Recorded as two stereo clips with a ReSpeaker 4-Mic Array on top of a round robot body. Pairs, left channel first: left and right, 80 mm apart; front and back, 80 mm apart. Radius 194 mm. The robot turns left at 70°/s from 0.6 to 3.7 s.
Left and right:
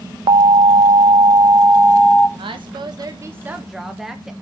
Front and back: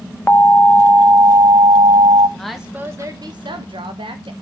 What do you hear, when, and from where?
0.3 s an alarm: 75° right, 1.0 m; by 2.3 s 170° left, 1.0 m
2.4 s a woman speaking: 85° right, 1.3 m; by 4.3 s 175° right, 1.3 m